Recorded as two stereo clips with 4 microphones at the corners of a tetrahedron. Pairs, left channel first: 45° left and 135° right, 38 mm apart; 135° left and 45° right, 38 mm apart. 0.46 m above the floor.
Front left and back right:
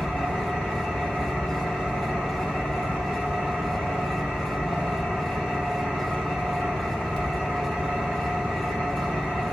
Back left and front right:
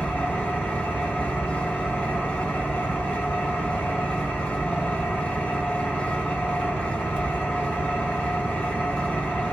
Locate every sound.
0.0 s an engine running: 125° left, 1.8 m